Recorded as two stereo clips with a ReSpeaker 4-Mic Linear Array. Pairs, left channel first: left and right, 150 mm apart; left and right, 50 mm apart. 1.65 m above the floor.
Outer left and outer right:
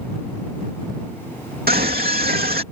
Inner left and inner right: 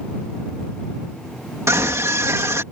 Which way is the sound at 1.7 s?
85° right.